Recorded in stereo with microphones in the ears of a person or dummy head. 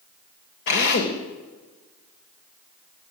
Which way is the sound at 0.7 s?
55° left (ahead or behind).